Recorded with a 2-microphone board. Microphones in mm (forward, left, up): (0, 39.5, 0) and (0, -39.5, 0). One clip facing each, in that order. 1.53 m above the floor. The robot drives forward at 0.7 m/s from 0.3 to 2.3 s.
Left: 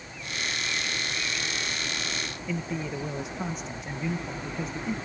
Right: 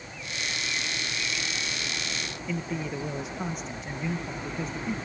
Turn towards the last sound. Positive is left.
turn(degrees=0)  # may be behind; listen again after turning